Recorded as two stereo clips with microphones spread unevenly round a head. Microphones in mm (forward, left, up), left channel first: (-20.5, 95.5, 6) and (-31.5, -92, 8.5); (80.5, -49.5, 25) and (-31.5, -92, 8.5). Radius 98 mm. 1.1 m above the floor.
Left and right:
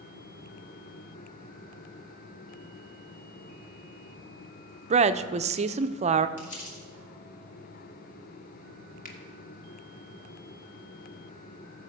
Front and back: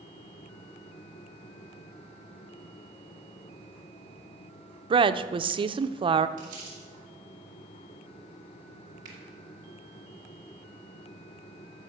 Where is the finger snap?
135° left, 1.5 m.